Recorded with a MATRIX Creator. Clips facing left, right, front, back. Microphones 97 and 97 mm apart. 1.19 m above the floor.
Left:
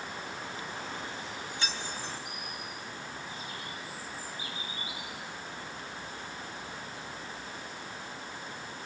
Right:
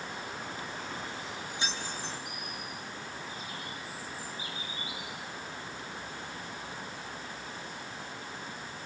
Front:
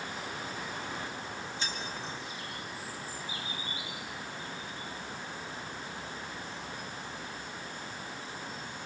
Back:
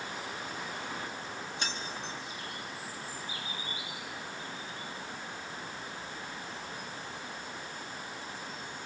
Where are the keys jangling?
160° right, 4.5 m.